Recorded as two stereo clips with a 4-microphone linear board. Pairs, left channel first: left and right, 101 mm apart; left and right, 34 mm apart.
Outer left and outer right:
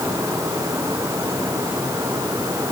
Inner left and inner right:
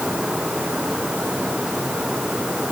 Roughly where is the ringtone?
No ringtone in this recording.